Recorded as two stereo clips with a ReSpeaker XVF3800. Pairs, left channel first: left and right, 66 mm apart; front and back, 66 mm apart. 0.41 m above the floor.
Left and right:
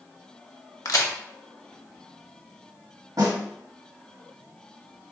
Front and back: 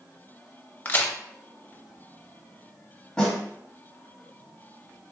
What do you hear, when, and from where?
0.8 s a crack: 55° left, 0.5 m
3.2 s a snare drum: 75° right, 1.1 m